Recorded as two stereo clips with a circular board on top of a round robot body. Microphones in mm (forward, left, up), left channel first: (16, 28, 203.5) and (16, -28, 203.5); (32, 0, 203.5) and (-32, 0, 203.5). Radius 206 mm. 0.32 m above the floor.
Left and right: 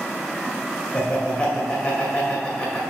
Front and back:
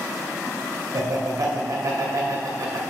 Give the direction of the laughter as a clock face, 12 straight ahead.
7 o'clock.